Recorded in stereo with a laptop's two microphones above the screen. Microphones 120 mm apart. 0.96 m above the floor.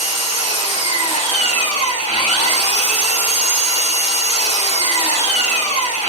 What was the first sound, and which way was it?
An engine running, 70° left (ahead or behind).